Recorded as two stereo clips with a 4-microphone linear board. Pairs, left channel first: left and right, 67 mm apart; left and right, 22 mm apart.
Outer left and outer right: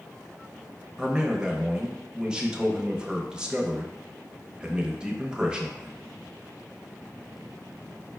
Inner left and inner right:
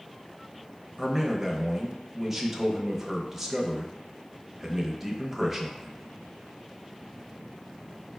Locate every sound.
1.0 s a man speaking: 10° right (ahead or behind), 0.6 m